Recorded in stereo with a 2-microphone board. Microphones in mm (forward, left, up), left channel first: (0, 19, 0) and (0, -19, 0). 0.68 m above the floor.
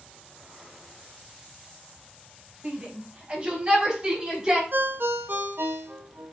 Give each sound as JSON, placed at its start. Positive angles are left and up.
{"t": 2.6, "sound": "a shout", "side_deg": -40, "distance_m": 4.5}
{"t": 4.7, "sound": "a ringtone", "side_deg": -65, "distance_m": 1.4}